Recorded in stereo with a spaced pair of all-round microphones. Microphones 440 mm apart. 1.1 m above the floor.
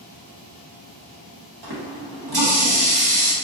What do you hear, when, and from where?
1.6 s a running tap: 60° right (ahead or behind), 0.9 m